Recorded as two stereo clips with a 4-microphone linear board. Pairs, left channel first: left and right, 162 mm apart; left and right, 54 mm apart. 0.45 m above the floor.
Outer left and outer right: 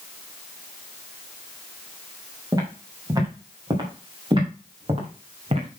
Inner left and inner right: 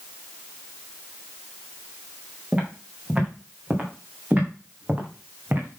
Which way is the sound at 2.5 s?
25° right (ahead or behind).